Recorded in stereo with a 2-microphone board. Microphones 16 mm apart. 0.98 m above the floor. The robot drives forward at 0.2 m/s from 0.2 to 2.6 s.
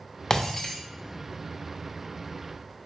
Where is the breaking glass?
35° left (ahead or behind), 0.6 m; by 0.8 s 30° left (ahead or behind), 0.7 m.